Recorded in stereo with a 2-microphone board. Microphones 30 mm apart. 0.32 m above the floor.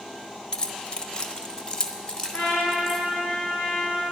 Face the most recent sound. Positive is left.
turn(degrees=80)